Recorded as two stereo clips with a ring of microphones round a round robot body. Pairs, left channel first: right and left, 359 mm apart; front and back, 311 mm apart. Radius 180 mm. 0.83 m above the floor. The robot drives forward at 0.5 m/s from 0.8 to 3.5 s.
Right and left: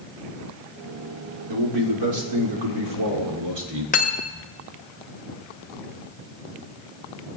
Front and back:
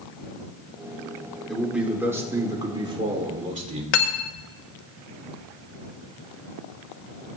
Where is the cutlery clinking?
20° right, 0.7 m.